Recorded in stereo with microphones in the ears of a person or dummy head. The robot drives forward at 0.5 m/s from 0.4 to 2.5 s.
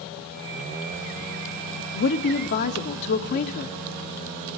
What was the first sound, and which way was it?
A woman speaking, 60° left (ahead or behind).